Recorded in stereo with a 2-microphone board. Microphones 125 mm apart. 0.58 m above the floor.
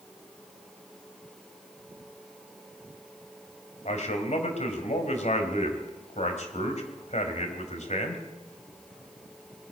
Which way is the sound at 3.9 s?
65° left (ahead or behind).